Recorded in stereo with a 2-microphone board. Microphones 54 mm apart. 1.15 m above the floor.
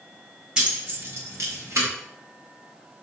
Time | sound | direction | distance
0.6 | keys jangling | 20° right (ahead or behind) | 0.9 m